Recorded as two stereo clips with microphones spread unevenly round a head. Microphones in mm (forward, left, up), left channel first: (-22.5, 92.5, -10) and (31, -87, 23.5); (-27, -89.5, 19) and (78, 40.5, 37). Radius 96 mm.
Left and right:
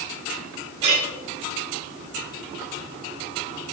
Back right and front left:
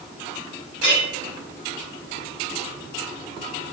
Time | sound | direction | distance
0.8 | a clink | 130° right | 5.5 m